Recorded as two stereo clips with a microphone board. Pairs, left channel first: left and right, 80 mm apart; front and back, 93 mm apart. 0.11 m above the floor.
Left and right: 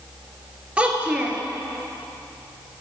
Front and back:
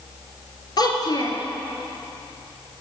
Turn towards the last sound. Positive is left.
turn(degrees=-15)